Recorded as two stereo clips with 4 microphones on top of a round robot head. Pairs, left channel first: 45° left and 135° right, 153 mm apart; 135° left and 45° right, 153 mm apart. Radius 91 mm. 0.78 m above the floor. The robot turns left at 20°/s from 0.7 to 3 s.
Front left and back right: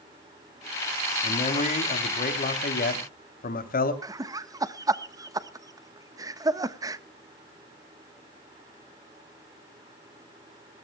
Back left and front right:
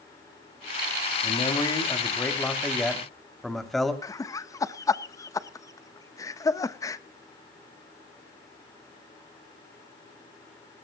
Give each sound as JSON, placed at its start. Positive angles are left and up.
{"t": 1.2, "sound": "a man speaking", "azimuth_deg": 80, "distance_m": 2.5}
{"t": 4.0, "sound": "laughter", "azimuth_deg": 180, "distance_m": 1.0}